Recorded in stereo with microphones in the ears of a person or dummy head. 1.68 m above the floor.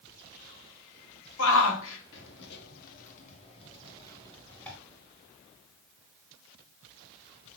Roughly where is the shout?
Left.